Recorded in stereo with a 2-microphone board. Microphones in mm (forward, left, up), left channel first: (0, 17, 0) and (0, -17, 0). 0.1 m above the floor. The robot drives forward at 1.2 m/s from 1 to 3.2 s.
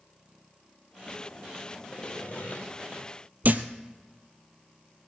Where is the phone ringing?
I don't hear a phone ringing.